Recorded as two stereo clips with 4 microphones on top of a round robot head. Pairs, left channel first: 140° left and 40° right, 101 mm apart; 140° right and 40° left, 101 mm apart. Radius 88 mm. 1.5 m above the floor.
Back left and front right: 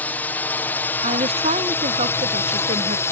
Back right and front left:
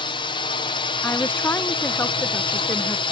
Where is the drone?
150° right; by 3.1 s 160° right.